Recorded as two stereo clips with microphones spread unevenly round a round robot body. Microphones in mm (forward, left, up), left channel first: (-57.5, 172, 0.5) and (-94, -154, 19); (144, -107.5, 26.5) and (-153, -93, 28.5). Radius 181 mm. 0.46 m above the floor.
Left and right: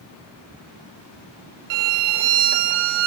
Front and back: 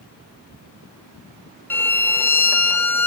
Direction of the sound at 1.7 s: 85° right.